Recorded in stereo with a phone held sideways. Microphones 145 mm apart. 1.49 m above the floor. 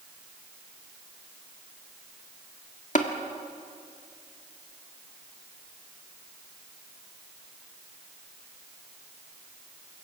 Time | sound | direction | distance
3.0 | tapping | 60° left (ahead or behind) | 1.6 m